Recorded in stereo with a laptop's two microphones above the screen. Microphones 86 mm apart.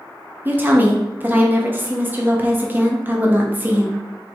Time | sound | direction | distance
0.5 | a woman speaking | 25° right (ahead or behind) | 0.8 m